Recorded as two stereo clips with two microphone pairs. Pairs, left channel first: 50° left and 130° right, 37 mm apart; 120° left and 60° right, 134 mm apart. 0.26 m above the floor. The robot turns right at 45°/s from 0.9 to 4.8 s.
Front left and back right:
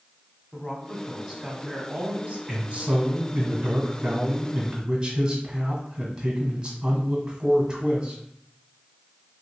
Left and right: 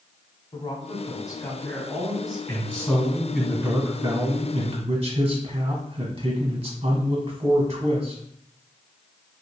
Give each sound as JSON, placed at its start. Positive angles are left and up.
{"t": 0.5, "sound": "a woman speaking", "azimuth_deg": 150, "distance_m": 1.3}
{"t": 2.5, "sound": "a man speaking", "azimuth_deg": -170, "distance_m": 1.3}